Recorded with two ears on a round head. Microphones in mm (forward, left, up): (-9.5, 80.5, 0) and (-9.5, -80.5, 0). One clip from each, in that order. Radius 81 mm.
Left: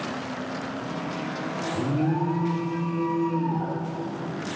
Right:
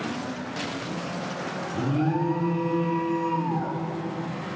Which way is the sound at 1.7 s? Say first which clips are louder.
Right 1 dB; 35° right (ahead or behind).